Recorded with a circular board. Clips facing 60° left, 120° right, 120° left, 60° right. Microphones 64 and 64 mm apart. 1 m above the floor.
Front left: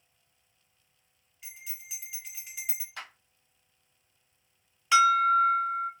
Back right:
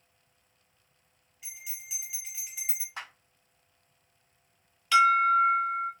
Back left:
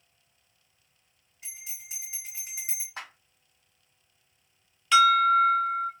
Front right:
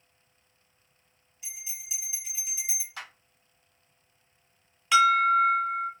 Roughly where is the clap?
Behind.